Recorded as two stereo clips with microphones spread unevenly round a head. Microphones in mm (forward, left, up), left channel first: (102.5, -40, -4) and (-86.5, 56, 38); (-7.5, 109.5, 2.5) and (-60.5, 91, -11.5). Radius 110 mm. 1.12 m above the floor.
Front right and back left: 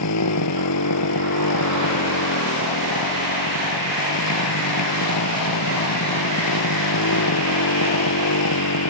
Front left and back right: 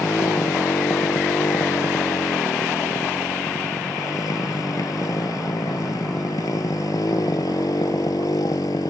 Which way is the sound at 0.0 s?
30° right.